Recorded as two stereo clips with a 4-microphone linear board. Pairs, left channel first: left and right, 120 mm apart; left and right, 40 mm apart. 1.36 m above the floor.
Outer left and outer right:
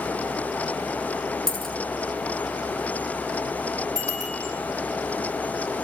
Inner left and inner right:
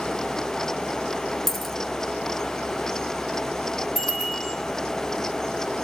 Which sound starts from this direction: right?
A bicycle bell, at 4.0 s.